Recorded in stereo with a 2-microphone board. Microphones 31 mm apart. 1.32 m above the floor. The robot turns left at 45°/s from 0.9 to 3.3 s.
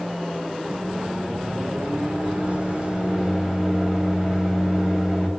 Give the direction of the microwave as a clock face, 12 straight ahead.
2 o'clock.